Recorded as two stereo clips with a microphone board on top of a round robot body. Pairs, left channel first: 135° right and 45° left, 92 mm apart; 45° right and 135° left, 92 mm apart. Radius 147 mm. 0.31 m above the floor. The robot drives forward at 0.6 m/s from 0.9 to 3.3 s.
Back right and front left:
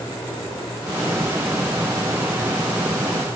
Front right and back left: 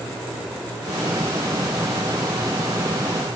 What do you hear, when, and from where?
Only background noise.